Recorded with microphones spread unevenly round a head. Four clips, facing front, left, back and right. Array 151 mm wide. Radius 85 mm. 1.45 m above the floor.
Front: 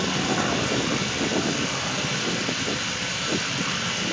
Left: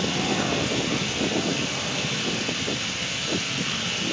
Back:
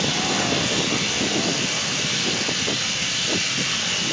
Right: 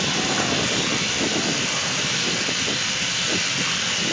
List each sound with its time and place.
0.0 s running water: 55° right, 4 m